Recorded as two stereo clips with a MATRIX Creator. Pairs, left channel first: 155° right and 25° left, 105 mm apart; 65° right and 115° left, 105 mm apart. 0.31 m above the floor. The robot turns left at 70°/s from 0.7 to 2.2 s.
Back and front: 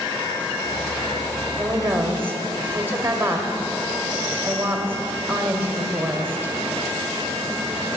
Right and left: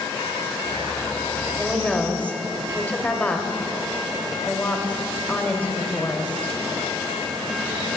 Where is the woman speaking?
30° left, 1.0 m; by 6.5 s 15° right, 1.0 m.